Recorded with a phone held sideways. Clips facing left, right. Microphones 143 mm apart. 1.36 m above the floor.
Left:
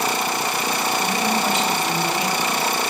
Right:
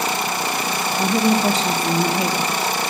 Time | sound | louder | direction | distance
1.0 | a woman speaking | right 8 dB | 35° right (ahead or behind) | 1.1 m